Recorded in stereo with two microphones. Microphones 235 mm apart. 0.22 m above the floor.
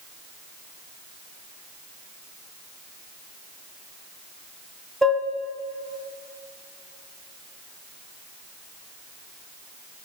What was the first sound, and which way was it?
Dishes clattering, centre (ahead or behind).